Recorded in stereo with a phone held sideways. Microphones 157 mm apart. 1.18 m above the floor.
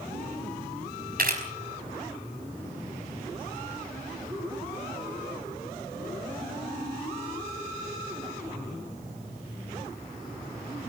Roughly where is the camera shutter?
Right.